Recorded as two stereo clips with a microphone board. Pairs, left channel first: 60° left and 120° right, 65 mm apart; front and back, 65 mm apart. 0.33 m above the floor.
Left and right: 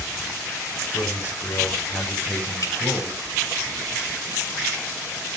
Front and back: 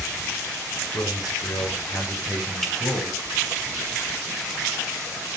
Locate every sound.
0.9 s a man speaking: 15° left, 6 m; by 3.2 s 5° right, 7 m
2.6 s dripping: 85° left, 3.5 m